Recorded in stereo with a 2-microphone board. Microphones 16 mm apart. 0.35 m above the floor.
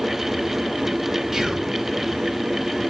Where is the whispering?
25° right (ahead or behind), 2 m.